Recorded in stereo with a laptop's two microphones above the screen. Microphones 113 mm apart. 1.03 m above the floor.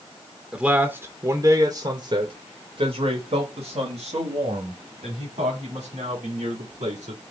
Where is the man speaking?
5° right (ahead or behind), 1.1 m; by 7.2 s 80° right, 3.5 m.